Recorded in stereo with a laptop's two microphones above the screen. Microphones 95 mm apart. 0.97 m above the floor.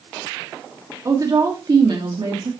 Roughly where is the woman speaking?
Right.